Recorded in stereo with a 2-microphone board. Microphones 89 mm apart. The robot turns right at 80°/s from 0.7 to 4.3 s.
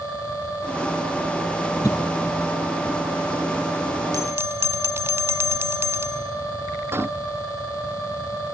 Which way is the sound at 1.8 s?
40° left (ahead or behind).